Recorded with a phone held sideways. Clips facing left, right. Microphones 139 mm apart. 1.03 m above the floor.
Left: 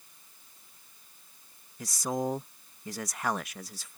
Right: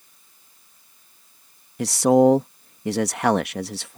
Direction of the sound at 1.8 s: 75° right (ahead or behind).